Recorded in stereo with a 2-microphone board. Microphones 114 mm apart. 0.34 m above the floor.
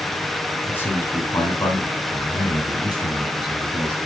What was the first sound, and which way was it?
A man speaking, 20° left (ahead or behind).